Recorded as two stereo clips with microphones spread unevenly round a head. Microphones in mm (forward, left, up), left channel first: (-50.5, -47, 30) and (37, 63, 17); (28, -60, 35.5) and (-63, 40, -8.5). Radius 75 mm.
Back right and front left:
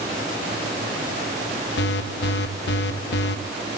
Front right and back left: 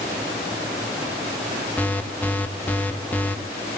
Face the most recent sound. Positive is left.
turn(degrees=-120)